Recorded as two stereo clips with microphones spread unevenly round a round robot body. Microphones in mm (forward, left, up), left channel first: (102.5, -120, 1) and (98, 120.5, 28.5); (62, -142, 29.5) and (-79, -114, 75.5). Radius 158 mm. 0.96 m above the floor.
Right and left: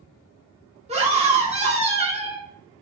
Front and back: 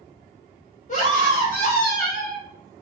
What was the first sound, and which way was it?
A scream, 25° left.